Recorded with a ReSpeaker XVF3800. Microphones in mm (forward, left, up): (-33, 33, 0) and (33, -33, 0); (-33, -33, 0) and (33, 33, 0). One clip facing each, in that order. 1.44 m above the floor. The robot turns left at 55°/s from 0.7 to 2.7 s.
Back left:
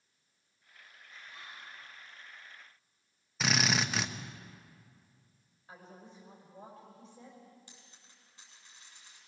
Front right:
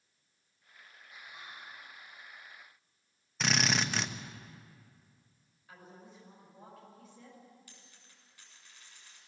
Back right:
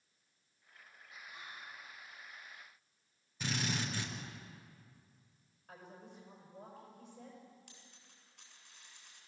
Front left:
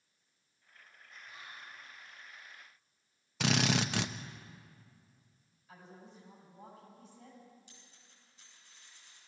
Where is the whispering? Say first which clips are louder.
Front right 1 dB, even; 25° right, 6 m; by 1.8 s 50° right, 6 m.